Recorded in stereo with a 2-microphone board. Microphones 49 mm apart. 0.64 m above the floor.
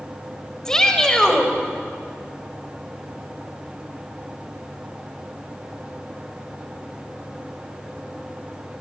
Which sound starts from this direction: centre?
A shout, at 0.7 s.